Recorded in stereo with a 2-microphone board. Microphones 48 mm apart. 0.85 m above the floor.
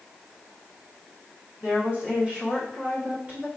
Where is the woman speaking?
30° right (ahead or behind), 1.4 m.